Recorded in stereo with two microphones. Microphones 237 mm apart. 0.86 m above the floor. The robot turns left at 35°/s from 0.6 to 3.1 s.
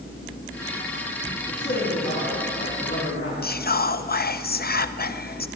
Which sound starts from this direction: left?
Whispering, at 3.4 s.